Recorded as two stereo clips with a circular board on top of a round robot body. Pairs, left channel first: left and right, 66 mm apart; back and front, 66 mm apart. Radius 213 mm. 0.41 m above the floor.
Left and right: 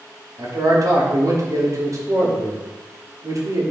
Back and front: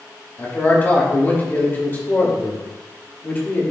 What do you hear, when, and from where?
0.4 s a man speaking: 120° right, 2.5 m